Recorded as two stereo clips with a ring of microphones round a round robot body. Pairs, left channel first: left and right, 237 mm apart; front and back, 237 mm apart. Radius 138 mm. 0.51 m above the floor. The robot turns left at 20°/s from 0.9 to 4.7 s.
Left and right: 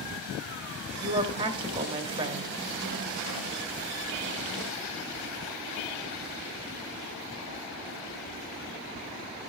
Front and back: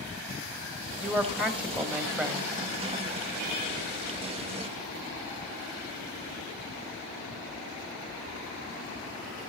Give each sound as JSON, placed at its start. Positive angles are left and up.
{"t": 1.0, "sound": "a woman speaking", "azimuth_deg": -90, "distance_m": 1.1}